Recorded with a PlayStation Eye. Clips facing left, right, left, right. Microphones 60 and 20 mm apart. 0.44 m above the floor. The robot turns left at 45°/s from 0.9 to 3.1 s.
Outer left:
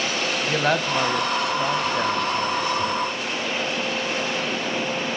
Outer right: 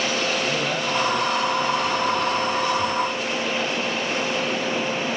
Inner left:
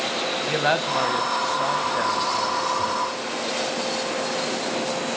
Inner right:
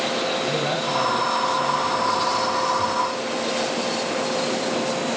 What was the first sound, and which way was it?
A man speaking, 115° left.